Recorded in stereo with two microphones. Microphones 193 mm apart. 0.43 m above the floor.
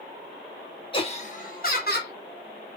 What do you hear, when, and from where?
0.9 s laughter: 25° left (ahead or behind), 0.8 m; by 2.1 s 60° left (ahead or behind), 1.3 m